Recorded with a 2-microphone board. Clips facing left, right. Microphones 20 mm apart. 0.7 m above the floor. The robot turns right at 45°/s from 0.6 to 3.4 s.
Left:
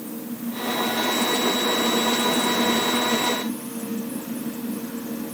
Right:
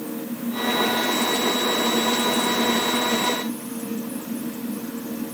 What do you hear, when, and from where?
Only background noise.